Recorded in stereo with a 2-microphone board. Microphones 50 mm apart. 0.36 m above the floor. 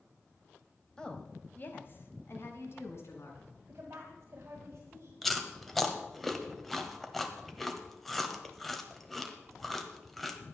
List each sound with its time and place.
1.0 s a woman speaking: 10° left (ahead or behind), 1.3 m; by 3.5 s 60° left (ahead or behind), 3.5 m
3.7 s a woman speaking: 45° right (ahead or behind), 1.9 m
5.2 s chewing: centre (ahead or behind), 1.3 m